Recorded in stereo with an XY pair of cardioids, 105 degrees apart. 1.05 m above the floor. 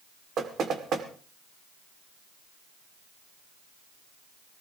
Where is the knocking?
60° right, 2 m.